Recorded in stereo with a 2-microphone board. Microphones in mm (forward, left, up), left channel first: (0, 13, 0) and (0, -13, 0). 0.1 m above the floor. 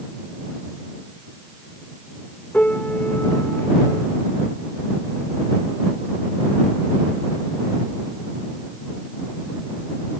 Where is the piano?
65° left (ahead or behind).